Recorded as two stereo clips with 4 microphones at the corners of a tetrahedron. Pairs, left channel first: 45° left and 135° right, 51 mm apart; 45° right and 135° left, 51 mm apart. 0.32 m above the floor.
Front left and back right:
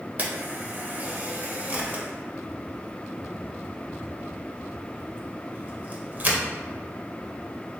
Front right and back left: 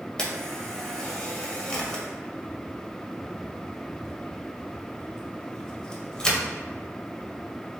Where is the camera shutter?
110° right, 0.6 m.